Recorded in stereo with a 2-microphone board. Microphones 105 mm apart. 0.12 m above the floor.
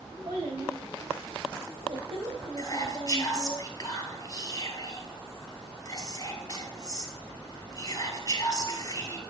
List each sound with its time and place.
0.2 s a child speaking: 60° right (ahead or behind), 6 m; by 3.6 s 55° right (ahead or behind), 2.5 m
2.6 s whispering: 35° left (ahead or behind), 1.9 m